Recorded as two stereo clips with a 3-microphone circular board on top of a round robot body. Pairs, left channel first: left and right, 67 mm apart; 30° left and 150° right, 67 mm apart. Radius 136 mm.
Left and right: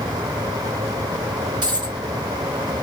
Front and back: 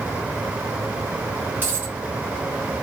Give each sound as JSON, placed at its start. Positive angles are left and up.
{"t": 1.6, "sound": "a dropped coin", "azimuth_deg": -90, "distance_m": 2.0}